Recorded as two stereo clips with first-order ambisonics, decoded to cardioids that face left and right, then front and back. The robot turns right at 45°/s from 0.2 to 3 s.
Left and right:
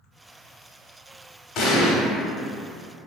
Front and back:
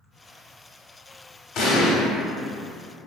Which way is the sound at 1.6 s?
45° left.